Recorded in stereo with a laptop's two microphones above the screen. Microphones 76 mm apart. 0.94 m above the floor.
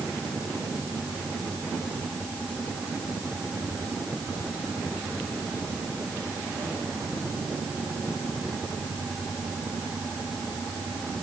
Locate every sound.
Only background noise.